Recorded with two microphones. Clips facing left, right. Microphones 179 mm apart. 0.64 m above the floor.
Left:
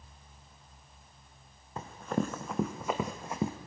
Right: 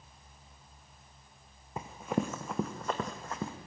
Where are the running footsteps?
15° right (ahead or behind), 1.8 m; by 3.5 s 20° left (ahead or behind), 1.6 m.